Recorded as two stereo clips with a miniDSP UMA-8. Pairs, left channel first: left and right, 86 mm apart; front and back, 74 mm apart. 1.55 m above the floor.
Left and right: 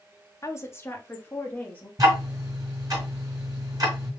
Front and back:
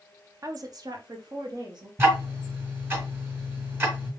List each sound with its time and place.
0.4 s a woman speaking: 145° left, 0.7 m; by 1.9 s 160° left, 1.5 m
2.0 s ticking: 125° right, 2.5 m